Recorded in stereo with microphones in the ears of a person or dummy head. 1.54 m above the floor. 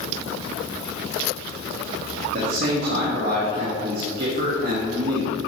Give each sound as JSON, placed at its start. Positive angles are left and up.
{"t": 2.3, "sound": "a man speaking", "side_deg": -55, "distance_m": 2.0}